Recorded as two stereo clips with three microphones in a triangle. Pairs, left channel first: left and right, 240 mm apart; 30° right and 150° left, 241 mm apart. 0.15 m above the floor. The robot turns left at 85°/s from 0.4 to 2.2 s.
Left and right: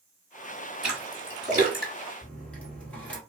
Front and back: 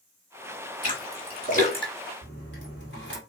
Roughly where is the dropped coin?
Ahead.